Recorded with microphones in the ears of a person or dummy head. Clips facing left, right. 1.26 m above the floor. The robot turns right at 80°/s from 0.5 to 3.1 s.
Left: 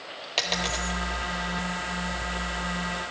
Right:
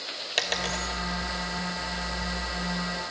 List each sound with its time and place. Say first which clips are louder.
0.4 s a dropped coin: left 1 dB; 15° right (ahead or behind), 1.1 m; by 0.9 s 5° left (ahead or behind), 1.1 m